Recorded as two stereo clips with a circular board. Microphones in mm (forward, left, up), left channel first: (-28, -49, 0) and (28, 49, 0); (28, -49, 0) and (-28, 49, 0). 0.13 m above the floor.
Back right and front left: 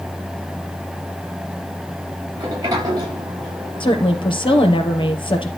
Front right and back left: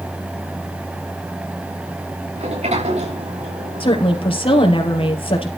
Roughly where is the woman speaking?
Right.